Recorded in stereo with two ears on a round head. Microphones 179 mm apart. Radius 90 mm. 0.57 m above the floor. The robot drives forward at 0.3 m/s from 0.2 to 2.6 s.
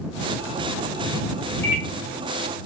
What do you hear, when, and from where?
1.6 s a microwave: 15° left (ahead or behind), 0.7 m